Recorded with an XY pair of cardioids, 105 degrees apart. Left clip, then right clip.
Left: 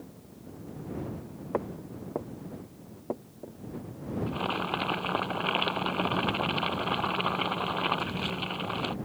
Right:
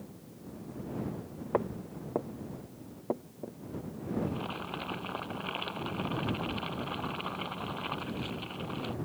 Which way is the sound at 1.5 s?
15° right.